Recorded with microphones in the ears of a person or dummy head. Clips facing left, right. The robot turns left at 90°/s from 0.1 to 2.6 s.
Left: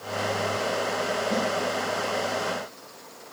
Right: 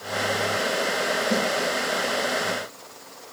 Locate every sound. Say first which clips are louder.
1.3 s a snare drum: right 3 dB; 75° right (ahead or behind), 8 m; by 1.5 s 80° right, 8 m